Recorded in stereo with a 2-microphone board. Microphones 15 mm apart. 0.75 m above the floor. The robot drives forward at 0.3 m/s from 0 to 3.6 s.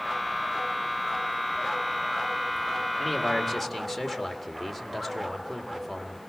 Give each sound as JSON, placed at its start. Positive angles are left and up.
{"t": 3.0, "sound": "a man speaking", "side_deg": 15, "distance_m": 2.0}